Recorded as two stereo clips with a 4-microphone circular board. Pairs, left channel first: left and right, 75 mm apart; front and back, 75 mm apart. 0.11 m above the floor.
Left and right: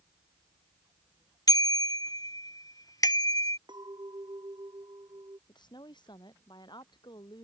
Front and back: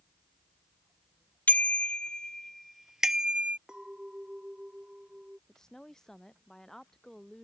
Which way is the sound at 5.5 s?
85° left.